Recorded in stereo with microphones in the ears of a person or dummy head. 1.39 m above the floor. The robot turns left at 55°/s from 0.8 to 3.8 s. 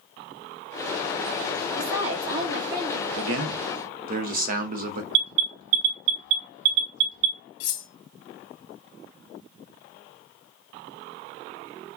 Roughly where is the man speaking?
Right.